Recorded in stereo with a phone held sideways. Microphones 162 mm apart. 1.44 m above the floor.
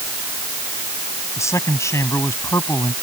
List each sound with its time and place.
1.4 s a man speaking: 15° left (ahead or behind)